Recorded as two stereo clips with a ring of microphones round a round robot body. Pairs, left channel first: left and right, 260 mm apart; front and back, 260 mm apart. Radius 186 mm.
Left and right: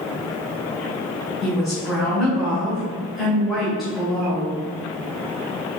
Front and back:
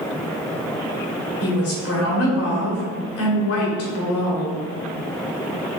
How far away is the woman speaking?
About 1.9 m.